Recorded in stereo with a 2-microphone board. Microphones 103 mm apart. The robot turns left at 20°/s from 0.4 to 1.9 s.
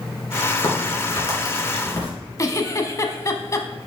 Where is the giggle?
35° left (ahead or behind), 0.9 m.